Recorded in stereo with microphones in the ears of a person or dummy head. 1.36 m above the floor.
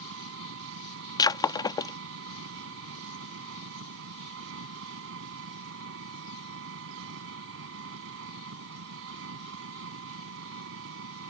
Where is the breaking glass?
20° left (ahead or behind).